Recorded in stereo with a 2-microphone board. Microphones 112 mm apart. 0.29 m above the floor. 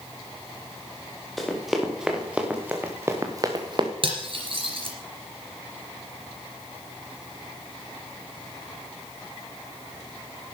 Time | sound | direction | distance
1.4 | running footsteps | centre (ahead or behind) | 4 m
4.0 | cutlery clinking | 50° right (ahead or behind) | 3 m